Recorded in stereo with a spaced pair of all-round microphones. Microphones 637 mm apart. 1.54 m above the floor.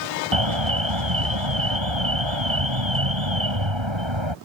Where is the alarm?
45° right (ahead or behind).